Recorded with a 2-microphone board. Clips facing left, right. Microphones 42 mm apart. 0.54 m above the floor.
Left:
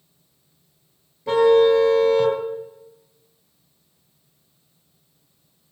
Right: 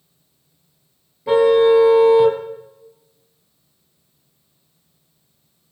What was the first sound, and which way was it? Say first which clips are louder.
A car horn: right 2 dB; 10° right (ahead or behind).